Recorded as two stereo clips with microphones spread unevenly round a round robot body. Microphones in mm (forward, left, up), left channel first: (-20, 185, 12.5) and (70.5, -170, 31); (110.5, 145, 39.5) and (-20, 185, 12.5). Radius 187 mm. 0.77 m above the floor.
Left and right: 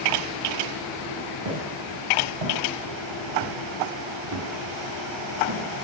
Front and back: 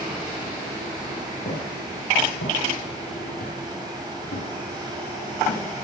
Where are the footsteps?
50° right, 7.5 m; by 5.8 s 10° right, 5 m.